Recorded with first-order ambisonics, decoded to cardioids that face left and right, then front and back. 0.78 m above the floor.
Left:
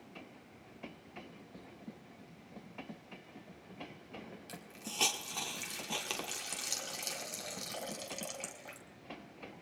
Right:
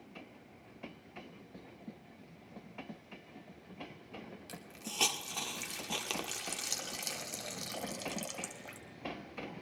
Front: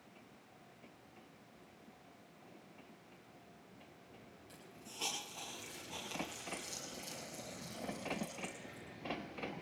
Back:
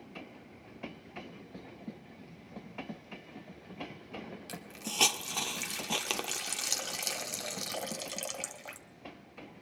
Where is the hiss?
175° right, 1.6 m.